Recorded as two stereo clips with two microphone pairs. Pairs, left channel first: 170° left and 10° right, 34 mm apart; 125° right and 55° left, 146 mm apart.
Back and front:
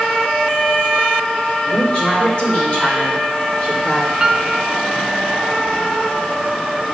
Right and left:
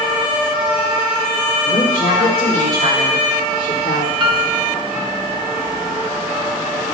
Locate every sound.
1.7 s a woman speaking: 145° right, 4.5 m; by 4.1 s 130° right, 2.5 m
4.2 s a piano: 45° left, 0.7 m